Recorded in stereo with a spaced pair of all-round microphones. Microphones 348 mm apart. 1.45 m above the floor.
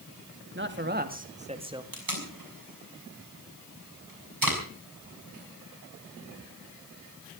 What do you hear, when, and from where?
0.6 s a man speaking: 35° right (ahead or behind), 2 m; by 1.8 s 10° right (ahead or behind), 1.9 m
1.9 s tape being pulled: 70° right (ahead or behind), 6 m